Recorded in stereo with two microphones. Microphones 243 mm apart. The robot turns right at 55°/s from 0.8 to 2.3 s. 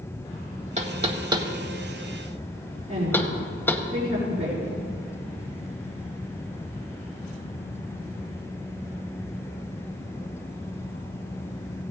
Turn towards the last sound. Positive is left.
turn(degrees=-30)  # may be behind; listen again after turning